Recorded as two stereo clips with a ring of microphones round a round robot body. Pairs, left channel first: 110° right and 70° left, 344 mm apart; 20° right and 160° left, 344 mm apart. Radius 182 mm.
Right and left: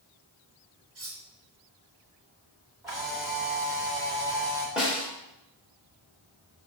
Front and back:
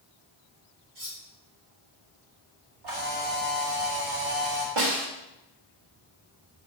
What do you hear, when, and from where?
0.9 s cutlery clinking: 120° left, 3 m
2.8 s a camera shutter: 145° left, 3.5 m
4.8 s a snare drum: 155° left, 2.5 m